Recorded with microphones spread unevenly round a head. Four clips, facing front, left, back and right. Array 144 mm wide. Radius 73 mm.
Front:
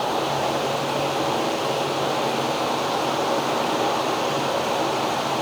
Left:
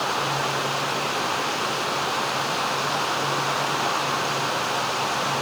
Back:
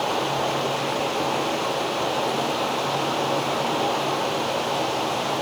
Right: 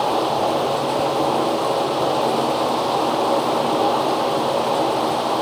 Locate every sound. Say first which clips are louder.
0.0 s running water: right 7 dB, front 1 dB; 80° right